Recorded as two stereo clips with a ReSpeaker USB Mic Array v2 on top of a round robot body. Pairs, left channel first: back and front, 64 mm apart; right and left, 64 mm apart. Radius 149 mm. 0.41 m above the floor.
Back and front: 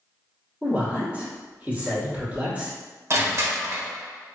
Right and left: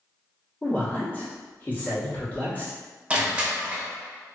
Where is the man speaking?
45° right, 1.4 m.